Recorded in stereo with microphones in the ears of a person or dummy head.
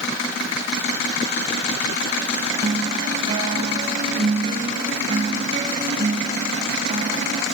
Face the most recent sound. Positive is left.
turn(degrees=-30)  # may be behind; listen again after turning